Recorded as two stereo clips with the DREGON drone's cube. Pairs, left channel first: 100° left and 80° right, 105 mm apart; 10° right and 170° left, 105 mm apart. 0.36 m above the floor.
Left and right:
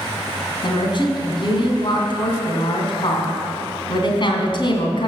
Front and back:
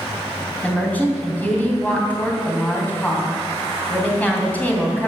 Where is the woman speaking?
65° left, 2.5 m.